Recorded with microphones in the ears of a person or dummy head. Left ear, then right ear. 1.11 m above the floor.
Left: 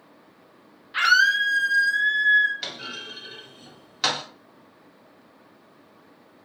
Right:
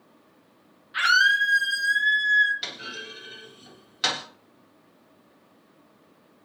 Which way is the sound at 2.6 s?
5° left (ahead or behind).